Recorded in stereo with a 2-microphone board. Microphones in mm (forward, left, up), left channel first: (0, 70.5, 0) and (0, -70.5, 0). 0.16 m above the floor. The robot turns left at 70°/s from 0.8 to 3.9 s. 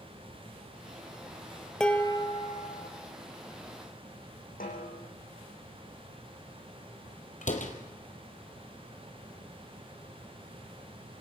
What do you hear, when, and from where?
1.8 s dishes clattering: 175° left, 2.5 m; by 2.9 s 100° left, 2.5 m
4.6 s a snare drum: 80° left, 6.5 m
7.4 s a door slam: 65° left (ahead or behind), 3 m